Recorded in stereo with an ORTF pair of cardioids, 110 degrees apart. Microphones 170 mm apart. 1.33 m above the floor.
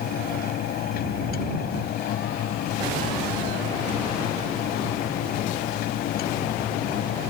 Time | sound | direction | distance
0.0 | a fan | 65° left | ?